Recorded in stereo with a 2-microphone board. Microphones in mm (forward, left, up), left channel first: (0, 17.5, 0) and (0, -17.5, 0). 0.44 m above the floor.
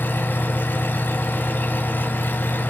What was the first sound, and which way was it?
An engine running, 65° left (ahead or behind).